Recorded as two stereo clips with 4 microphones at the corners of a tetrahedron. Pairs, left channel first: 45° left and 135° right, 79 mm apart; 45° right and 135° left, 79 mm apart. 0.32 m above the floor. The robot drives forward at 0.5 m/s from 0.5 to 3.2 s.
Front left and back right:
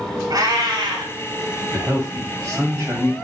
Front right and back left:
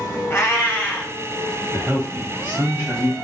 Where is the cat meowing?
100° right, 0.6 m; by 1.1 s 125° right, 0.7 m.